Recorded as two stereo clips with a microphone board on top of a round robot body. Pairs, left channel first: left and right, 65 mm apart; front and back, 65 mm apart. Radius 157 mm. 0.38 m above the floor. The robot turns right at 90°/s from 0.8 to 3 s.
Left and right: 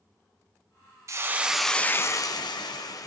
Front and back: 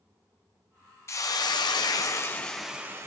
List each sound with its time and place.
1.1 s a hiss: 45° right, 0.9 m; by 3.1 s 125° left, 0.9 m